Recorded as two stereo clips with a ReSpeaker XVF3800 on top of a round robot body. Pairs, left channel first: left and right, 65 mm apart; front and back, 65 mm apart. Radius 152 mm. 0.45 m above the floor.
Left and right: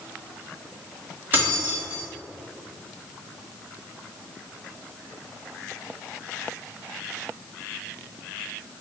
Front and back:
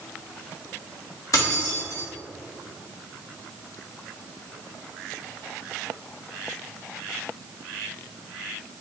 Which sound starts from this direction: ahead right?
Keys jangling, at 1.3 s.